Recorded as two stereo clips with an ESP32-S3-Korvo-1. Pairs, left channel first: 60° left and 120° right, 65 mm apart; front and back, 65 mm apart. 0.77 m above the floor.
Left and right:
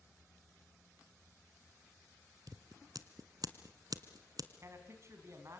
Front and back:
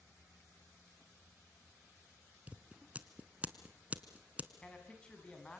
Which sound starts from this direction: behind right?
Scissors, at 2.5 s.